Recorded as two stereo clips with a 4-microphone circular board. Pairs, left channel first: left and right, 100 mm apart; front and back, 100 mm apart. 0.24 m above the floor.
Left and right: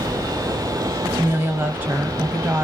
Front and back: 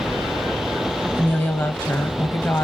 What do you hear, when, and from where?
1.1 s a woman speaking: 45° right, 1.0 m